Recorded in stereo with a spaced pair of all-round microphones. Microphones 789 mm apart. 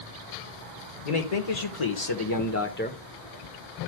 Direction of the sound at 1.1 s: 55° left (ahead or behind).